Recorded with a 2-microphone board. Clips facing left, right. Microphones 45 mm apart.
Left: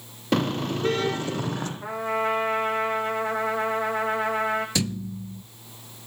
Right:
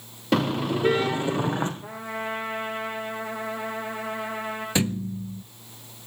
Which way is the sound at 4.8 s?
30° right (ahead or behind).